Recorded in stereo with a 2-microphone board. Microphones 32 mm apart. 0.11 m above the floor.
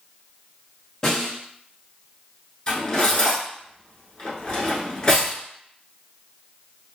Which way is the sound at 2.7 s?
25° left (ahead or behind).